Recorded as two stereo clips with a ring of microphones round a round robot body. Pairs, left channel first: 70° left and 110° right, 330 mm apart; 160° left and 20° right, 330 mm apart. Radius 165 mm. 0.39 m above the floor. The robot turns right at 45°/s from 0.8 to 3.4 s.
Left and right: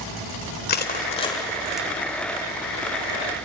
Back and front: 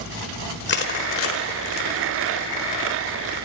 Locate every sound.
0.7 s crushing: 115° left, 1.6 m; by 1.9 s 165° left, 1.6 m